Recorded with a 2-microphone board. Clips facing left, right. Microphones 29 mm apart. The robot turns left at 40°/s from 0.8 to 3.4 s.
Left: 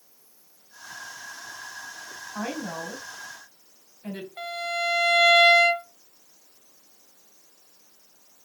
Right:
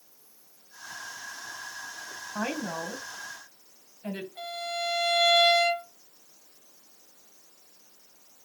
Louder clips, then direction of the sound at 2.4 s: Even; 60° right (ahead or behind).